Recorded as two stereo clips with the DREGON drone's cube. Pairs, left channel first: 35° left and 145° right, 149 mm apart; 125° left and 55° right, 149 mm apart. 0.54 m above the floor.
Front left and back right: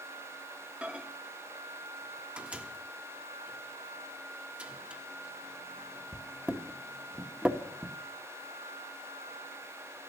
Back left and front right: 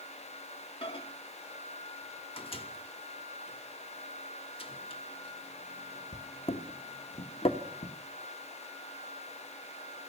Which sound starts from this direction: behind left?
A microwave, at 0.8 s.